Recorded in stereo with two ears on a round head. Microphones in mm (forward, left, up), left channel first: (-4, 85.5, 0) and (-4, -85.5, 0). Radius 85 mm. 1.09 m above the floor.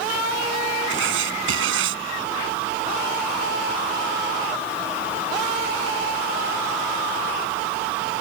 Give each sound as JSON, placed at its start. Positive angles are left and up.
{"t": 0.9, "sound": "writing", "side_deg": -80}